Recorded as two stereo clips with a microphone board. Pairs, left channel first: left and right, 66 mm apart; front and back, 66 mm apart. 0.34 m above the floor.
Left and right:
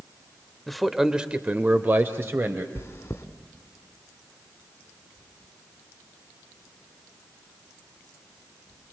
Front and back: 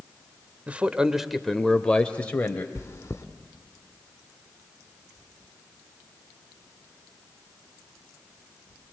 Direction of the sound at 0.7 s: 170° left.